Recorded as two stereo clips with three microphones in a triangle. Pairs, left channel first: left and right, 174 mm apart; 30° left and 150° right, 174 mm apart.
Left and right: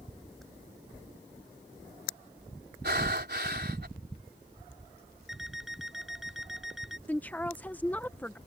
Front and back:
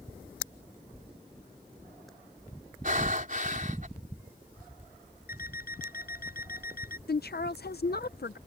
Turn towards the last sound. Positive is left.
turn(degrees=10)